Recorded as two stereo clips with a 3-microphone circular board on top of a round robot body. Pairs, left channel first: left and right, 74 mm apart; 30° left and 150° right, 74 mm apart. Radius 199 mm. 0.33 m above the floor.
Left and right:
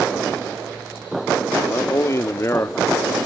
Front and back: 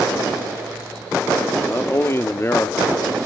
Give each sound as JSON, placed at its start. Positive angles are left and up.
{"t": 1.7, "sound": "a man speaking", "azimuth_deg": 65, "distance_m": 1.2}